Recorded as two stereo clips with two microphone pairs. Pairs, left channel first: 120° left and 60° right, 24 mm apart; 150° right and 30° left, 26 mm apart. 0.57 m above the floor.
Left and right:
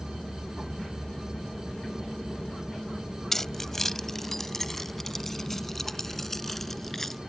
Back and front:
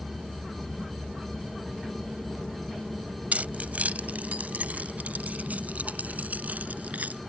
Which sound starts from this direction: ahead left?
Keys jangling, at 3.3 s.